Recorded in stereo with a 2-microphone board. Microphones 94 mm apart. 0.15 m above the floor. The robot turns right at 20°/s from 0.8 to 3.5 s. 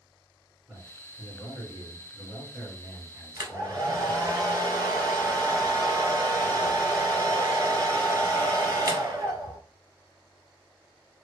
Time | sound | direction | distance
0.7 | a man speaking | 10° right | 1.8 m
3.4 | a hair dryer | 40° right (ahead or behind) | 0.9 m